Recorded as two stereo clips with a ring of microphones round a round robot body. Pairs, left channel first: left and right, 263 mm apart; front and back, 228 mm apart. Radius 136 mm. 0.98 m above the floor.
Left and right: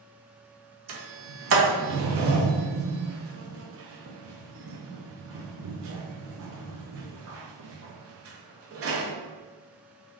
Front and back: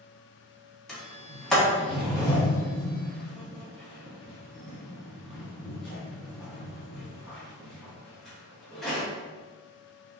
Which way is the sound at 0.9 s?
85° right.